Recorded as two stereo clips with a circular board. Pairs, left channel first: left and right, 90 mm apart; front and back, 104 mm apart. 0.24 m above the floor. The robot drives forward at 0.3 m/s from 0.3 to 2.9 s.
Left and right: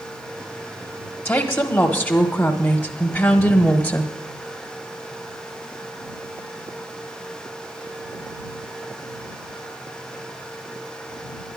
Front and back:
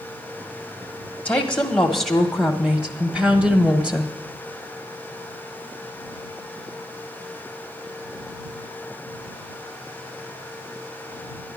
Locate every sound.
1.2 s a woman speaking: 60° left, 1.2 m; by 4.1 s 115° left, 1.1 m